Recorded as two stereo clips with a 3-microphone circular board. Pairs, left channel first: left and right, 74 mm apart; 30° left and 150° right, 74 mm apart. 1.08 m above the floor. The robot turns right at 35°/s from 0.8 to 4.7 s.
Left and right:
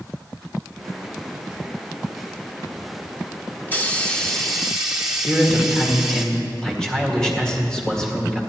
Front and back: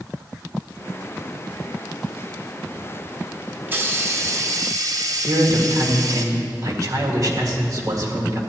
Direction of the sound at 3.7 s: 155° left.